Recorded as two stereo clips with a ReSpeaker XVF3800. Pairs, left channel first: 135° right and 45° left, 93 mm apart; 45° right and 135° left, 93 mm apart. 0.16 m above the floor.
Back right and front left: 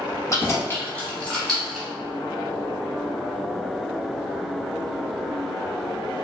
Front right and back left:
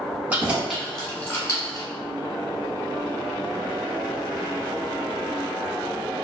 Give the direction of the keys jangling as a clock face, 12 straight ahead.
6 o'clock.